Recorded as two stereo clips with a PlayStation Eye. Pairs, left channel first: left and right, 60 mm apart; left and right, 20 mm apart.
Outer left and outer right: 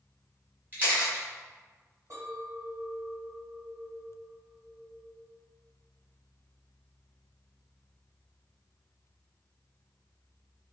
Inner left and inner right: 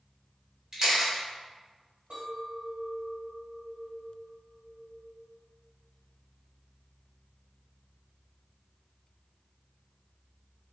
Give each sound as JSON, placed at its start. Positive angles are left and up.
{"t": 0.7, "sound": "a camera shutter", "side_deg": -30, "distance_m": 2.0}
{"t": 2.1, "sound": "a clink", "side_deg": -65, "distance_m": 1.9}